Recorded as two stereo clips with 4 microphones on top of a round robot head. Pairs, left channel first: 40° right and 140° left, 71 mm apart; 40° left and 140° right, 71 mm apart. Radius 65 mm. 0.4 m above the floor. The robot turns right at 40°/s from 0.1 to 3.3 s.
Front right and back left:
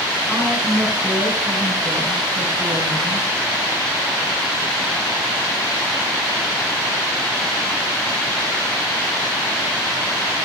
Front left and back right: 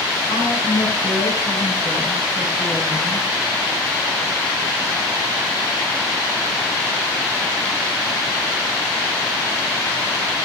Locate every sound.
0.3 s a woman speaking: 40° left, 9.5 m; by 3.3 s 155° left, 9.5 m